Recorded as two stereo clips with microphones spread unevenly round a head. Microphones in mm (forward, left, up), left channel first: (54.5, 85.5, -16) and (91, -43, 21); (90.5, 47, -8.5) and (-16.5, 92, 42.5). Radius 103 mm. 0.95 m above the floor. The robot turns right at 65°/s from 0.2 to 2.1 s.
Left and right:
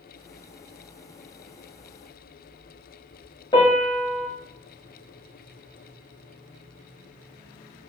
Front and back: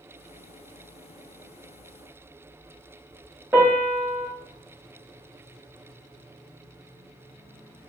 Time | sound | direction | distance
3.5 | a piano | 175° left | 0.8 m